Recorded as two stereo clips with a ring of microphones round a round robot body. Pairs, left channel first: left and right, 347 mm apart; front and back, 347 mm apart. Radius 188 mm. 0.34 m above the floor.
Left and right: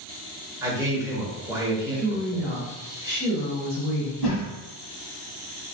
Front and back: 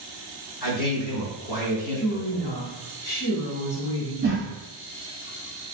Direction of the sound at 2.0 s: 10° right.